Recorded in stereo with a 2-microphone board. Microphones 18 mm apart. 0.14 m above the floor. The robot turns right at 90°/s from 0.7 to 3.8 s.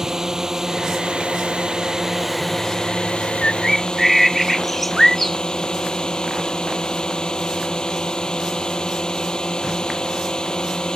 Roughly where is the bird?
Behind left.